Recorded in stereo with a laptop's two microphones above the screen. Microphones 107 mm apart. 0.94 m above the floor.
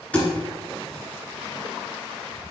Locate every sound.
0.1 s a thud: 10° left (ahead or behind), 1.3 m